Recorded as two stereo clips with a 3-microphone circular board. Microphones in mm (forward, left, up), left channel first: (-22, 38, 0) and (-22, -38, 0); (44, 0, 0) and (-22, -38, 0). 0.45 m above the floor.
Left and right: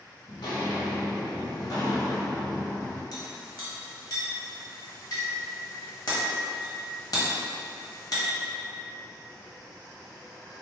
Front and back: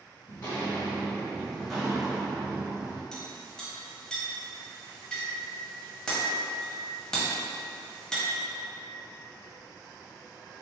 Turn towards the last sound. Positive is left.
turn(degrees=110)